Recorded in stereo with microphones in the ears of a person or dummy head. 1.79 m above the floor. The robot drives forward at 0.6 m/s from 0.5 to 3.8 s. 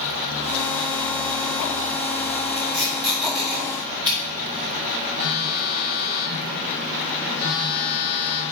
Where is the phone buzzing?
85° left, 1.1 m.